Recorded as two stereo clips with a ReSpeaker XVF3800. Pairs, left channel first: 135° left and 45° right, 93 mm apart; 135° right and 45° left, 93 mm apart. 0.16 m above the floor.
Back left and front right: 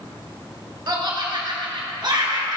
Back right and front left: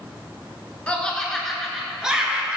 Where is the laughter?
65° right, 1.8 m; by 2.6 s 30° right, 2 m.